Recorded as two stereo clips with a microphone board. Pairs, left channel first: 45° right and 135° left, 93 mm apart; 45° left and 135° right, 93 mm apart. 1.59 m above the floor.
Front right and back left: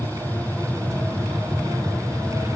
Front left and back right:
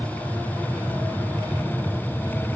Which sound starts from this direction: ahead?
An aircraft, at 0.0 s.